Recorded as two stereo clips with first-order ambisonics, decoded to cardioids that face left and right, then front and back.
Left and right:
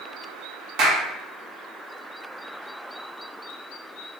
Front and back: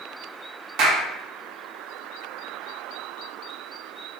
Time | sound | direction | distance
0.8 | a clap | 135° right | 1.0 m